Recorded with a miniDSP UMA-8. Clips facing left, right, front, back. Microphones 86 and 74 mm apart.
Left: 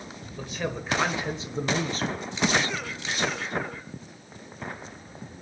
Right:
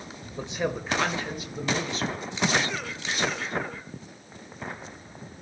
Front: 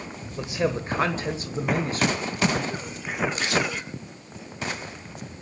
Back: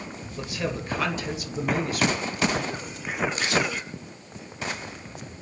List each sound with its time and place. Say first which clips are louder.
0.4 s a man speaking: right 3 dB, front 5 dB; 60° right, 1.2 m; by 2.3 s 55° left, 2 m